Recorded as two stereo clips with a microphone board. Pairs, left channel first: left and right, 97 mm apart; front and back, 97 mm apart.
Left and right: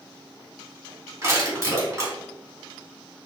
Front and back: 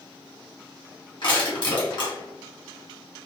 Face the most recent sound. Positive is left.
turn(degrees=-30)